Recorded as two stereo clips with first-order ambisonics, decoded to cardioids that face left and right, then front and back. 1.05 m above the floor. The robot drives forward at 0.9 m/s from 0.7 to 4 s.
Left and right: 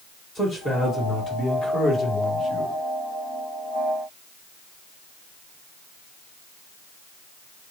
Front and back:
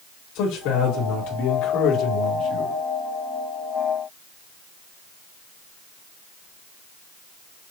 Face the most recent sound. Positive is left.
turn(degrees=100)